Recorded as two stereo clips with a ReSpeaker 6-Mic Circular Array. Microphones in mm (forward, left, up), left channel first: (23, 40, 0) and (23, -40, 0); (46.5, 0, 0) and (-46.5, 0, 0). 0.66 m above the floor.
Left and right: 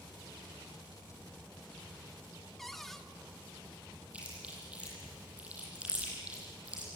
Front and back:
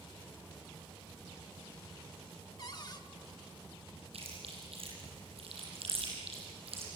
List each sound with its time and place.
1.0 s keys jangling: 90° right, 6 m
2.6 s a cupboard door: 5° left, 1.5 m
4.1 s chewing: 165° right, 8.5 m